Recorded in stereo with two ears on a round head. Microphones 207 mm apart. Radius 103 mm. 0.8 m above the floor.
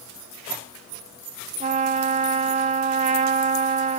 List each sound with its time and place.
1.6 s a trumpet: 35° right (ahead or behind), 0.8 m